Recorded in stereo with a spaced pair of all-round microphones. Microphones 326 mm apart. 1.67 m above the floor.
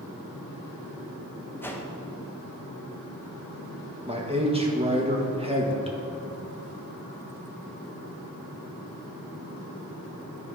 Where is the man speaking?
15° right (ahead or behind), 1.5 m.